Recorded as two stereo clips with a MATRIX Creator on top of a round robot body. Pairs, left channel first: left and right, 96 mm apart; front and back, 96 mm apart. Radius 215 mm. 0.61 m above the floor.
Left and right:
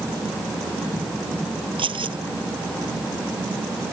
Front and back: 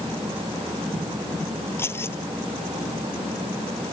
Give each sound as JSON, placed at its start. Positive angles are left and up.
{"t": 1.8, "sound": "keys jangling", "azimuth_deg": -65}